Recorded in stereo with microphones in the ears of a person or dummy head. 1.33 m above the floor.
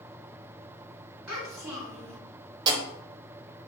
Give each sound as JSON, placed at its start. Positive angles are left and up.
{"t": 1.3, "sound": "a child speaking", "side_deg": -15, "distance_m": 2.0}
{"t": 2.7, "sound": "writing", "side_deg": -25, "distance_m": 0.6}